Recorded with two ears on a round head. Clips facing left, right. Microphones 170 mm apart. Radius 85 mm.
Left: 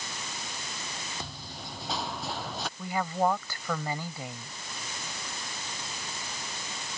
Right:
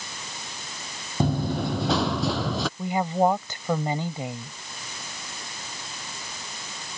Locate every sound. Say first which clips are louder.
1.2 s running footsteps: right 18 dB; 45° right (ahead or behind); by 2.7 s 65° right (ahead or behind)
2.8 s a woman speaking: right 5 dB; 20° right (ahead or behind)